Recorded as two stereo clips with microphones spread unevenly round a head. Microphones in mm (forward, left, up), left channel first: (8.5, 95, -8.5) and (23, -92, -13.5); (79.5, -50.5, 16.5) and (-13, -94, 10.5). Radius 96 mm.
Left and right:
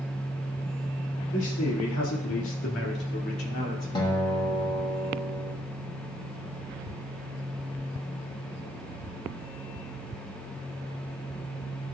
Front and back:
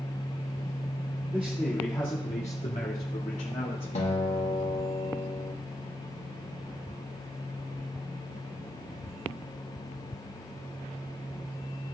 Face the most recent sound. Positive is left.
turn(degrees=25)